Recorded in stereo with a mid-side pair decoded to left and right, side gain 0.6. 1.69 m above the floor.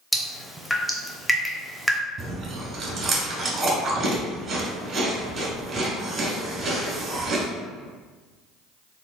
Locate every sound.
0.1 s dripping: 10° left, 0.6 m
2.2 s chewing: 35° right, 1.3 m